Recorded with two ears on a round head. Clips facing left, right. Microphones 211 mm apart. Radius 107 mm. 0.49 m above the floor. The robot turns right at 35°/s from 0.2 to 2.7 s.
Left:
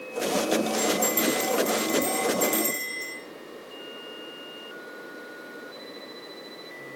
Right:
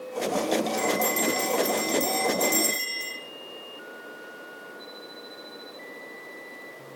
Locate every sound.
0.8 s a bell: 130° right, 9 m; by 3.2 s 60° right, 9 m